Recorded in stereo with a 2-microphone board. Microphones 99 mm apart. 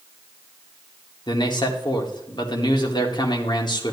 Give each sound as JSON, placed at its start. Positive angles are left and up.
{"t": 1.3, "sound": "a man speaking", "side_deg": 45, "distance_m": 1.6}